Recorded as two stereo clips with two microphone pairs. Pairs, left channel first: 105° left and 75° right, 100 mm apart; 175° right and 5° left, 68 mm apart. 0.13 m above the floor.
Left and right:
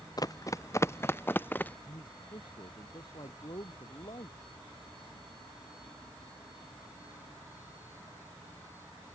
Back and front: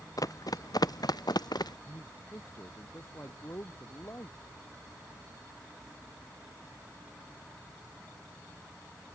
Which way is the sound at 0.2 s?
155° left.